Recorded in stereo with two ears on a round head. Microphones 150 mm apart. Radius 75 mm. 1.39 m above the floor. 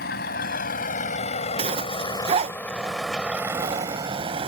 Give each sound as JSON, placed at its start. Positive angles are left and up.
{"t": 0.0, "sound": "a vehicle", "side_deg": 65}
{"t": 1.6, "sound": "a zipper", "side_deg": -35}